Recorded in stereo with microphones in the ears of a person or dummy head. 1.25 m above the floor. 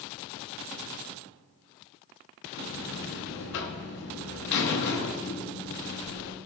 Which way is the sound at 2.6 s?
50° left (ahead or behind).